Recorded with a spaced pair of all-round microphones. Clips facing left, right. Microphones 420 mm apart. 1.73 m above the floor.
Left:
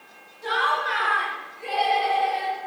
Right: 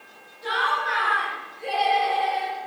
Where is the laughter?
60° left (ahead or behind), 1.0 m; by 2.6 s 25° right (ahead or behind), 0.7 m.